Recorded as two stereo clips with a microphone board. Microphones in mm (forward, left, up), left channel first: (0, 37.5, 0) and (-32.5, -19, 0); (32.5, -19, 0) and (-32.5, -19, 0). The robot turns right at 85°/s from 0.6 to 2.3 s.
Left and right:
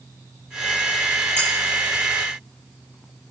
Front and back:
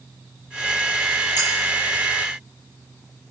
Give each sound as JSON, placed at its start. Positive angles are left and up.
{"t": 1.4, "sound": "cutlery clinking", "azimuth_deg": -20, "distance_m": 10.0}